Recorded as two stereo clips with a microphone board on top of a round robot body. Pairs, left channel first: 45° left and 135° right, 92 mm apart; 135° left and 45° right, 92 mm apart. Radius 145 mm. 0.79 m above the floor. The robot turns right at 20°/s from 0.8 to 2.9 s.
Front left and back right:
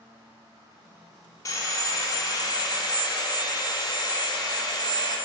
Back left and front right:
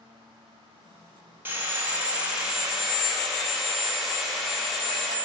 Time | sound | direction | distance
1.4 | sawing | 15° left | 1.3 m